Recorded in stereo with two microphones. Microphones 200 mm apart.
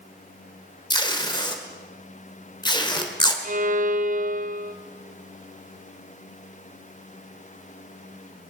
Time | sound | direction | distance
0.9 | tape being pulled | 20° left (ahead or behind) | 1.5 m
3.4 | a violin | 40° right (ahead or behind) | 0.7 m